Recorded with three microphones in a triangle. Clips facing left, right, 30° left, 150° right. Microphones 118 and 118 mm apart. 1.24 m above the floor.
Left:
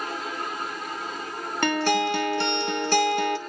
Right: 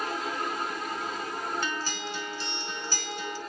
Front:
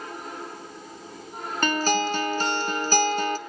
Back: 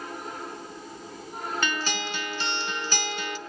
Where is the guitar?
75° left, 0.7 m.